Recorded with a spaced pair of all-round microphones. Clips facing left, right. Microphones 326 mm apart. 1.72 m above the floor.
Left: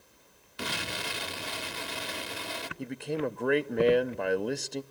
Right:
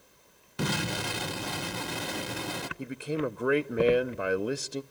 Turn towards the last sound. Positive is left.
turn(degrees=-5)  # may be behind; listen again after turning